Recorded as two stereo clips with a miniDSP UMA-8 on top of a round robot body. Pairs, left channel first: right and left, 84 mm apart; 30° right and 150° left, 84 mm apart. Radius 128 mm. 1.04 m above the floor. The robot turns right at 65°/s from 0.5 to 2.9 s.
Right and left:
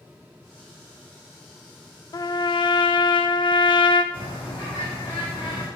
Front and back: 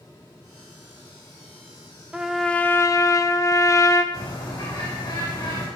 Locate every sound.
2.1 s a trumpet: 130° right, 0.5 m; by 4.0 s 80° right, 0.5 m
4.1 s a bird: 65° right, 3 m